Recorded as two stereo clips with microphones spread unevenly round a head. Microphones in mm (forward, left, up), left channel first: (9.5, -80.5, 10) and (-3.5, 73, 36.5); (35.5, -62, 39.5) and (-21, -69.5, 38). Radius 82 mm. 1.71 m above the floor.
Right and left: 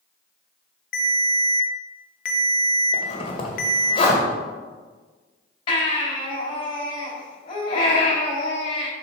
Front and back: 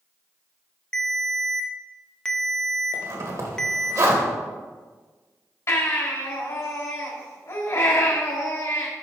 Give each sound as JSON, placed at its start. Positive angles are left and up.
{"t": 0.9, "sound": "a ringtone", "azimuth_deg": -65, "distance_m": 0.9}
{"t": 2.9, "sound": "a zipper", "azimuth_deg": -145, "distance_m": 1.6}
{"t": 5.7, "sound": "a baby crying", "azimuth_deg": -25, "distance_m": 3.5}